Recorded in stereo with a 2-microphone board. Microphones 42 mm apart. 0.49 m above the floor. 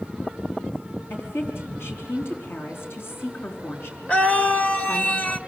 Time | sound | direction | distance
1.1 | a woman speaking | 75° left (ahead or behind) | 4 m
4.1 | a scream | 35° left (ahead or behind) | 1.7 m